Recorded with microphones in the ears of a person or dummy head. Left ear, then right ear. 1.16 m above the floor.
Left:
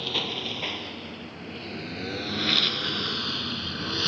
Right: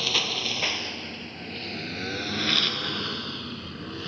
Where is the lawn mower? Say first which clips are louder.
Right 4 dB; 30° right (ahead or behind); by 4.1 s 40° left (ahead or behind).